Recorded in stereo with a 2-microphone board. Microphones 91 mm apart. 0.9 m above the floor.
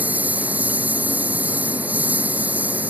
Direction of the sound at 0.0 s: 20° right (ahead or behind).